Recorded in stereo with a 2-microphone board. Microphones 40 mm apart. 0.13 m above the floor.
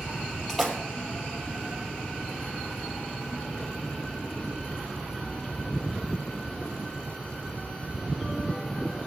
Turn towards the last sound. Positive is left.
turn(degrees=0)  # may be behind; listen again after turning